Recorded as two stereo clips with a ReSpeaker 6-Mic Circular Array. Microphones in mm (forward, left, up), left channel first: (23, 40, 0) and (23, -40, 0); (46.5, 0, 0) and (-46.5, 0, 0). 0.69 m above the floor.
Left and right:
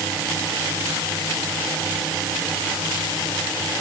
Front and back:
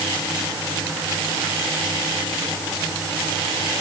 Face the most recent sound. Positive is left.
No sound to turn to.